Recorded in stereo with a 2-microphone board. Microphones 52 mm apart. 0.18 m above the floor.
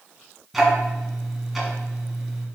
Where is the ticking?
5° right (ahead or behind), 2 m.